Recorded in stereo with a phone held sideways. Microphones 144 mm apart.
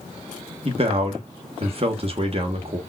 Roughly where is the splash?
No splash in this recording.